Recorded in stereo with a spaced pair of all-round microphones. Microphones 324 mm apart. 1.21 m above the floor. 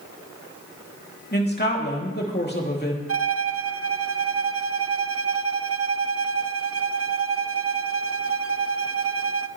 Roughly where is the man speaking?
Left.